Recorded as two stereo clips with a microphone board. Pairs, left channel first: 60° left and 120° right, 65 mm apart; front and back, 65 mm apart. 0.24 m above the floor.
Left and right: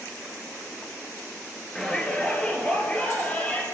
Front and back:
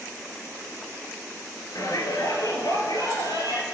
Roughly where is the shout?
Ahead.